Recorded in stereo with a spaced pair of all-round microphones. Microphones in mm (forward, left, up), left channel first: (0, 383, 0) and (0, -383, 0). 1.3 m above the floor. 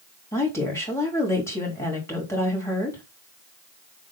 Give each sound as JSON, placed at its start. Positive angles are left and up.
{"t": 0.3, "sound": "a woman speaking", "side_deg": 5, "distance_m": 3.0}